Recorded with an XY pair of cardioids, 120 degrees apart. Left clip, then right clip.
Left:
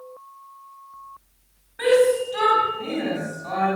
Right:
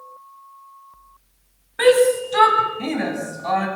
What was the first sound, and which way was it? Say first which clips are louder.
A shout: right 3 dB; 55° right.